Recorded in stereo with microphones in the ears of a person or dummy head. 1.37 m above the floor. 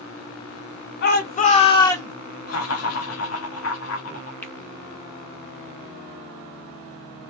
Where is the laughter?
70° left (ahead or behind), 1.0 m.